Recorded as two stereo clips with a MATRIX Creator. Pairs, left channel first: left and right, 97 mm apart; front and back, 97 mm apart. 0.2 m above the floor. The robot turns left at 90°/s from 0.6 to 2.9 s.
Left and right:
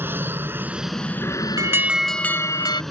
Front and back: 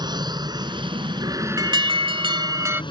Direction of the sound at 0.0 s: 155° right.